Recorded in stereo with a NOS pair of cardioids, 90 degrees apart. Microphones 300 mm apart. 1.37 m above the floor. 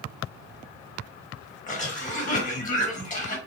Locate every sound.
1.7 s a cough: 25° left, 1.4 m